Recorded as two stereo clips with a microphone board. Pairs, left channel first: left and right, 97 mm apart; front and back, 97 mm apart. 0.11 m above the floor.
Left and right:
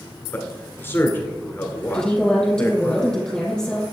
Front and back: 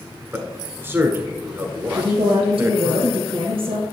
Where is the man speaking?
135° left, 1.2 m.